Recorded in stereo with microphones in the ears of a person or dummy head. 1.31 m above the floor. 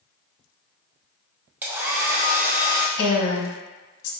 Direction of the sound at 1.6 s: 15° right (ahead or behind).